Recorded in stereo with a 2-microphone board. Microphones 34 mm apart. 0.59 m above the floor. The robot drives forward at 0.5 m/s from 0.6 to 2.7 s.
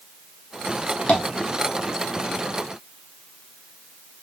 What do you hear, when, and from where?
1.1 s tapping: 45° left (ahead or behind), 0.8 m